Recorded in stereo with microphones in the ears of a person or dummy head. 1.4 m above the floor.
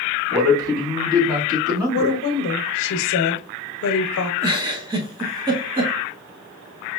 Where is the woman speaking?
70° left (ahead or behind), 0.8 m.